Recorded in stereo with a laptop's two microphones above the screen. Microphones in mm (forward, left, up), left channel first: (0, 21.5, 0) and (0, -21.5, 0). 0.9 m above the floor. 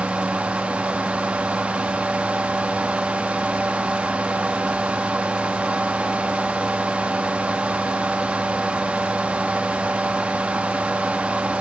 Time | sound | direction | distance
0.0 | a fan | 30° right (ahead or behind) | 0.9 m